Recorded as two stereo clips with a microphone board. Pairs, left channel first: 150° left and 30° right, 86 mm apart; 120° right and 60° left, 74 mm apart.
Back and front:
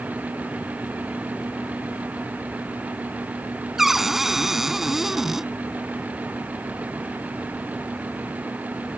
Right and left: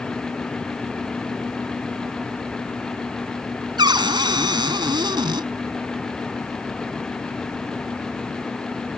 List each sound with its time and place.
3.8 s a cupboard door: 55° left